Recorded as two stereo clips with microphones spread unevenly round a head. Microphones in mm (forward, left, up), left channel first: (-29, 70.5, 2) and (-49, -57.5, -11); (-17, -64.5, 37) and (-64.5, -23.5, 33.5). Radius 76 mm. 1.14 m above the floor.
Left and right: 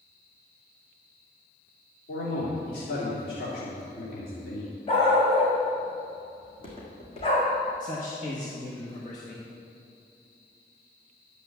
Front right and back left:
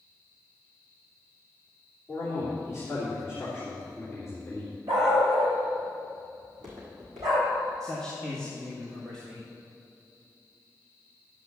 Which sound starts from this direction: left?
A man speaking, at 7.8 s.